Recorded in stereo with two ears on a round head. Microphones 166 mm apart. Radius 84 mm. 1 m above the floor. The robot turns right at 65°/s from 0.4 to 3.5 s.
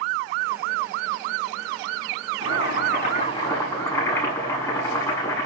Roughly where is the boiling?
Left.